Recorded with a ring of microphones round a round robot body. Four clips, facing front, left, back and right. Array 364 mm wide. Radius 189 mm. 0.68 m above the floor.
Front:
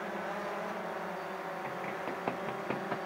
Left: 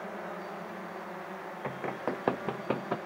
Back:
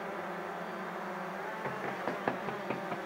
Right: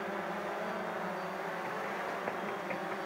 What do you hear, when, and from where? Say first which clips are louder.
1.6 s running footsteps: left 2 dB, back 1 dB; 110° left; by 3.0 s 85° left